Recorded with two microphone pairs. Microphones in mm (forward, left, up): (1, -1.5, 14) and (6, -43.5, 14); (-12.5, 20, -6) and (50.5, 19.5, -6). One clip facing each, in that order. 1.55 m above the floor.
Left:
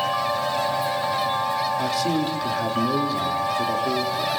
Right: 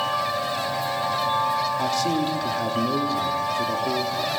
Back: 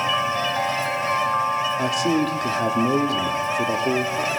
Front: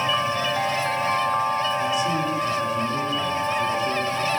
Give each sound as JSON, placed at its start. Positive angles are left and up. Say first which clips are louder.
{"t": 1.8, "sound": "a man speaking", "louder": "even, back 2 dB", "azimuth_deg": -175, "distance_m": 3.0}